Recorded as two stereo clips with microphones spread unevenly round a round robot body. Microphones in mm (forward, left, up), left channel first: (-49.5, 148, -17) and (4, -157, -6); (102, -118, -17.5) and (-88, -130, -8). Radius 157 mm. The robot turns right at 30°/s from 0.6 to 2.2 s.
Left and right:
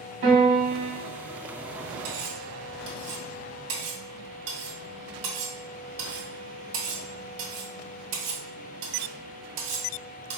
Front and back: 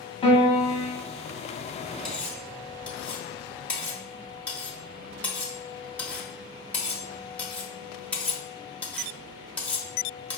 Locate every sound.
0.2 s a piano: 40° right, 1.5 m; by 0.9 s 30° right, 1.5 m
2.0 s cutlery clinking: 85° right, 1.3 m; by 10.4 s 80° right, 1.3 m